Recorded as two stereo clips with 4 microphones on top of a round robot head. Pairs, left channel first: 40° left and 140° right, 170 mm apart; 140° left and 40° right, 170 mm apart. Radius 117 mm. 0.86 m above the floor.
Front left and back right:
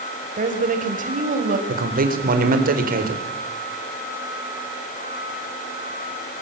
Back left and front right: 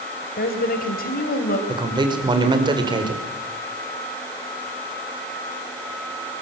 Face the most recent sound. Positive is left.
turn(degrees=-105)